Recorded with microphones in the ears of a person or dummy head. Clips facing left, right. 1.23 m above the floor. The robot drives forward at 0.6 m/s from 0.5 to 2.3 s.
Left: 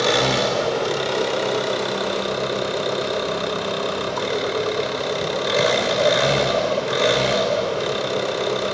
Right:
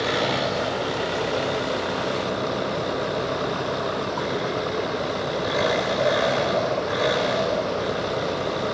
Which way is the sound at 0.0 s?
55° left (ahead or behind).